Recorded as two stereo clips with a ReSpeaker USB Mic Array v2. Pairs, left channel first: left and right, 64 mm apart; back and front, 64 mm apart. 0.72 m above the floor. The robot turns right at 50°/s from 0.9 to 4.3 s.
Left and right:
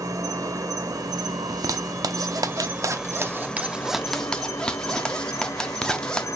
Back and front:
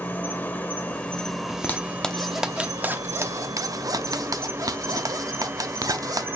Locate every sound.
0.0 s an insect: 115° right, 1.1 m; by 6.4 s 55° left, 1.1 m
1.5 s a zipper: 130° right, 0.7 m; by 6.3 s 10° left, 0.7 m